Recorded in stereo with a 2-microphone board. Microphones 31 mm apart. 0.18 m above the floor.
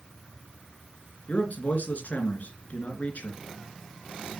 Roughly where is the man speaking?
Left.